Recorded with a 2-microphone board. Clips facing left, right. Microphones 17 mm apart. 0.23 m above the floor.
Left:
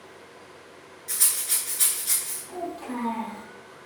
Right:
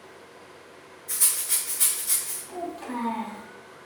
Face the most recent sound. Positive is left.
turn(degrees=-30)  # may be behind; listen again after turning